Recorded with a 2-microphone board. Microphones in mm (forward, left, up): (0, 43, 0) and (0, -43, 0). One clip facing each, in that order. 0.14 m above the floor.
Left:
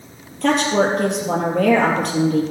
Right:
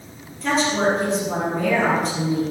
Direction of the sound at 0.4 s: 60° left (ahead or behind).